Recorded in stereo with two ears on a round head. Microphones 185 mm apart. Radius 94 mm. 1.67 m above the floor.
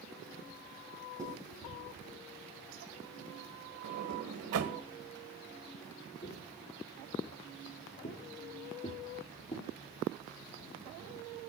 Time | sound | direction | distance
1.2 | writing | 20° right (ahead or behind) | 6 m
3.8 | a sliding door | 75° right (ahead or behind) | 1.2 m
6.2 | footsteps | 40° left (ahead or behind) | 2.5 m